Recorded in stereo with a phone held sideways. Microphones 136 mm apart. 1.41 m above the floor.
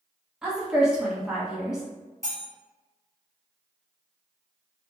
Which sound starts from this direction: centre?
A woman speaking, at 0.4 s.